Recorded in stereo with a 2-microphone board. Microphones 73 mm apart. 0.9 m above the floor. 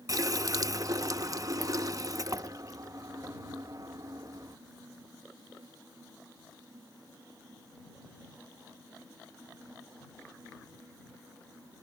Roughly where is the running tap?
Right.